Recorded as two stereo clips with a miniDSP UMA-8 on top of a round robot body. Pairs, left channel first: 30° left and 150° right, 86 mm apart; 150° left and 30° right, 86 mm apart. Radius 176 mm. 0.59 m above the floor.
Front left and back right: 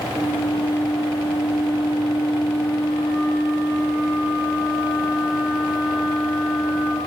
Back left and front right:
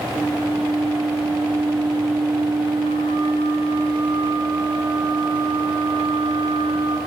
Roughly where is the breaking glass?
I don't hear breaking glass.